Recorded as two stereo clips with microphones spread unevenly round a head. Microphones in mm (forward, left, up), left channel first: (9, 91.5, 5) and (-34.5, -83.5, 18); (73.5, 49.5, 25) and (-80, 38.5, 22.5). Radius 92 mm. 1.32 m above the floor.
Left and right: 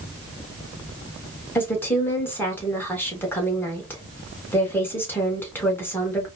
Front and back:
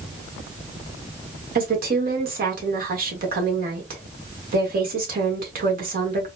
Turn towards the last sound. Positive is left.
turn(degrees=155)